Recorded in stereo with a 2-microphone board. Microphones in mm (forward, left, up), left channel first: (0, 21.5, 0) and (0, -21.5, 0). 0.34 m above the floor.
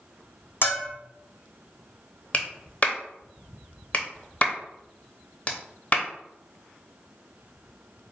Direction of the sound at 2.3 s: 35° left (ahead or behind).